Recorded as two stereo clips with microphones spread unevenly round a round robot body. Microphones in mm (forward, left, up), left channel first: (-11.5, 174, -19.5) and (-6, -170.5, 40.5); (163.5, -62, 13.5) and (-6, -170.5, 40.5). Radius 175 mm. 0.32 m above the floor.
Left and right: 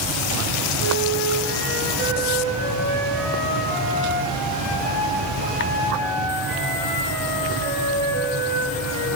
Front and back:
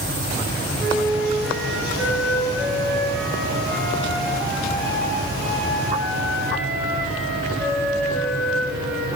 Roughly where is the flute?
Ahead right.